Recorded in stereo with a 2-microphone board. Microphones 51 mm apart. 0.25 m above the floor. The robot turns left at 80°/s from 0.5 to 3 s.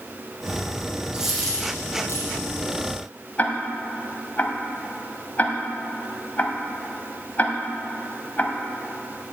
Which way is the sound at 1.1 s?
20° right (ahead or behind).